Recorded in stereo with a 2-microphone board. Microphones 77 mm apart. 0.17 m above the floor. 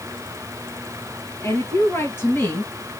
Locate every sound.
1.4 s a woman speaking: 35° left (ahead or behind), 3 m; by 2.7 s 25° left (ahead or behind), 2.5 m